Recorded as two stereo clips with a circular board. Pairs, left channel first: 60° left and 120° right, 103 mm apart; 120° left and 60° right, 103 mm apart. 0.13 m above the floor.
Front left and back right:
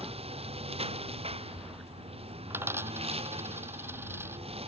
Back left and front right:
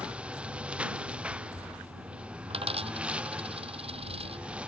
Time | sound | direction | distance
0.0 | a lawn mower | 140° right | ?
2.5 | a dropped coin | 55° right | ?